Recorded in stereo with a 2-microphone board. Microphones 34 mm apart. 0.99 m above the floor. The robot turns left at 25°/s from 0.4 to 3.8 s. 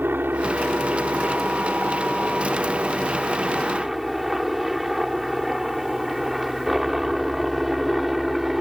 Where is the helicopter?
85° right; by 8.6 s 170° right.